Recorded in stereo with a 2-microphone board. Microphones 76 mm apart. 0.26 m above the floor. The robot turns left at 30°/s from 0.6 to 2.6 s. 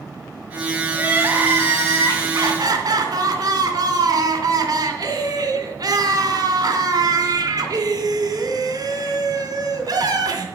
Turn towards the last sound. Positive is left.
turn(degrees=-70)